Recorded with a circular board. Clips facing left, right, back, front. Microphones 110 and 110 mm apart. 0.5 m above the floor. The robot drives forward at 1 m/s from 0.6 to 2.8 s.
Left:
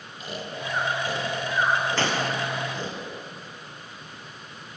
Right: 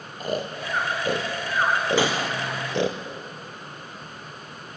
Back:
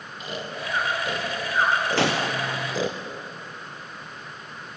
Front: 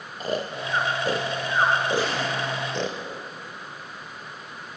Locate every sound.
0.2 s snoring: 50° right, 3 m; by 3.0 s 95° right, 2.5 m
2.0 s a gunshot: 170° right, 2.5 m; by 3.0 s 175° right, 3 m